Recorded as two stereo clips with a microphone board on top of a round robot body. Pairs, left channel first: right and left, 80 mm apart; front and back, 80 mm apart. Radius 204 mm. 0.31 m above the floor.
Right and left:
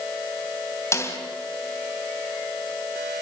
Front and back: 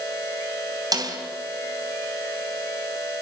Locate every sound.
0.9 s a snare drum: 140° right, 3.5 m